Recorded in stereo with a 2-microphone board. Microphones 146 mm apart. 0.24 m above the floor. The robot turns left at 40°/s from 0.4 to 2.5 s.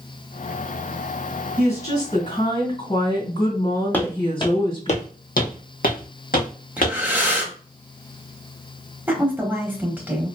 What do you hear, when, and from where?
1.6 s a woman speaking: 160° left, 2 m; by 4.9 s 125° left, 2 m
3.9 s footsteps: 15° left (ahead or behind), 0.7 m; by 7.0 s 70° left (ahead or behind), 1.4 m
6.8 s breathing: 10° right (ahead or behind), 0.8 m
9.1 s a woman speaking: 15° right (ahead or behind), 0.9 m